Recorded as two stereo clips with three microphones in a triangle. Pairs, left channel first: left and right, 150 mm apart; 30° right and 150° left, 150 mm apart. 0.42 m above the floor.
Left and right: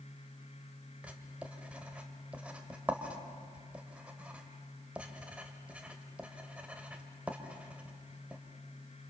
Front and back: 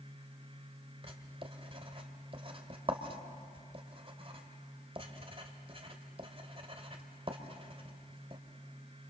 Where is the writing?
170° right, 2 m.